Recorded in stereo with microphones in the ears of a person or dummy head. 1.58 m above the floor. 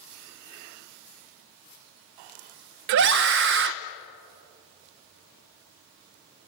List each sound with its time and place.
2.9 s a scream: 60° right (ahead or behind), 1.1 m